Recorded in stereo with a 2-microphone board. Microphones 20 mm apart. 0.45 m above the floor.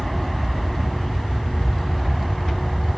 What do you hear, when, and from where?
0.0 s an aircraft: 5° left (ahead or behind)